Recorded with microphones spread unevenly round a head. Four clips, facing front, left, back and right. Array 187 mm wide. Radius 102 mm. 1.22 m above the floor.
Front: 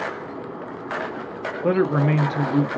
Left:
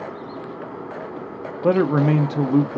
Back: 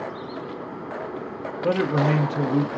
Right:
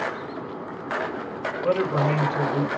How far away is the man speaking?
About 0.8 m.